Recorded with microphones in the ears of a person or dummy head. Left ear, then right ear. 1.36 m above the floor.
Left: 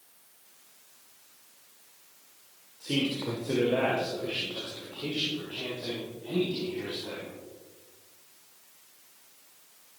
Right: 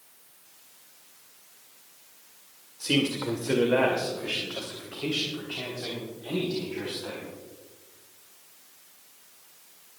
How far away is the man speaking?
About 1.7 m.